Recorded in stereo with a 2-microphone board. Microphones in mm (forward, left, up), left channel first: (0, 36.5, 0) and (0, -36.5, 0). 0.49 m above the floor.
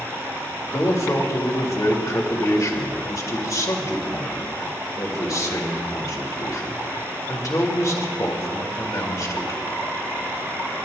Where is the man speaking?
55° left (ahead or behind), 1.9 m.